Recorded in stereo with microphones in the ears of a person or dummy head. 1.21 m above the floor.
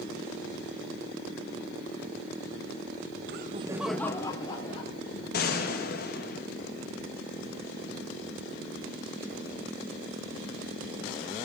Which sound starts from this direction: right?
Laughter, at 3.3 s.